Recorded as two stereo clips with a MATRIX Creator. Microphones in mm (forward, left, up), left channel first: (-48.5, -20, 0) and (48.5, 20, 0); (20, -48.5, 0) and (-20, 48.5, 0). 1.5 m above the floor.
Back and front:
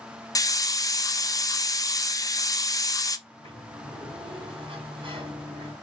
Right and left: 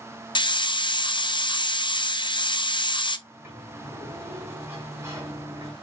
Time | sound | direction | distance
0.3 | a hiss | 105° right | 0.5 m
3.3 | a sliding door | 50° left | 2.5 m